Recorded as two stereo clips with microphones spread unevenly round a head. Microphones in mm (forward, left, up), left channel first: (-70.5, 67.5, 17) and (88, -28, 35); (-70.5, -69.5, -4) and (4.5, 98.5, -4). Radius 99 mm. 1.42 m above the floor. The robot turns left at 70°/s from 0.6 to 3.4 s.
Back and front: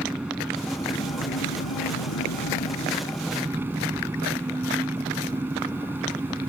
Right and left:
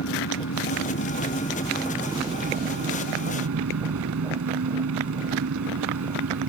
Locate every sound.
0.0 s an engine running: 115° right; by 6.5 s 50° left